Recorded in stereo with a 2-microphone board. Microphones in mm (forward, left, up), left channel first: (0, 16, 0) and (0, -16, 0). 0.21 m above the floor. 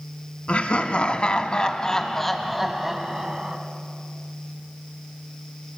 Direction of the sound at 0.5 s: 45° left (ahead or behind).